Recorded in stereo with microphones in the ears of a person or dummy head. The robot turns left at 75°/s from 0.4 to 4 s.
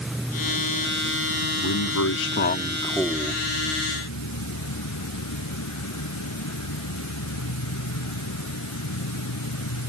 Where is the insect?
5° right; by 9.9 s 85° left.